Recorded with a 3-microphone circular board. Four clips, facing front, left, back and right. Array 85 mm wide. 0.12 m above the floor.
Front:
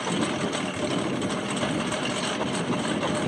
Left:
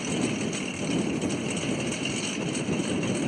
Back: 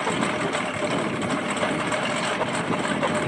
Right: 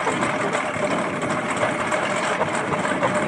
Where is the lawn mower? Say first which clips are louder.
Right 7 dB, back 2 dB; 105° right.